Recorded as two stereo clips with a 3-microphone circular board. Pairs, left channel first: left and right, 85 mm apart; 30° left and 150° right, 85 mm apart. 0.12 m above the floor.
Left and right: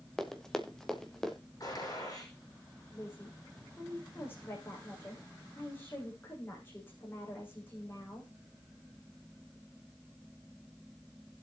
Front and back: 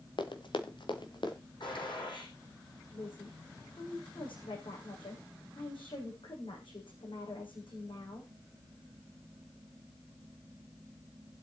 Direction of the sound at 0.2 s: 5° left.